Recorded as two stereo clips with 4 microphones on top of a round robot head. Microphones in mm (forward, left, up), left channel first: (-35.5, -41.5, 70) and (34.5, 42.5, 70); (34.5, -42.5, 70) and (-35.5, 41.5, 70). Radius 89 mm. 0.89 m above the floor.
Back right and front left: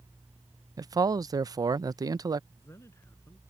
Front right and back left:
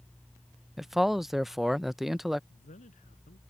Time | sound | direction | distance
0.8 | a man speaking | 40° left | ?
2.5 | a man speaking | 60° right | ?